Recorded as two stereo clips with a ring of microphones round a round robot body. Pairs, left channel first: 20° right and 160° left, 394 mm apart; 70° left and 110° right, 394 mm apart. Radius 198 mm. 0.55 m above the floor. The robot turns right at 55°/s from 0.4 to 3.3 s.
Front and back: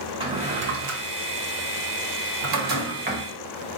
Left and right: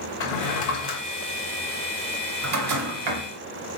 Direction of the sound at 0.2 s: 80° left.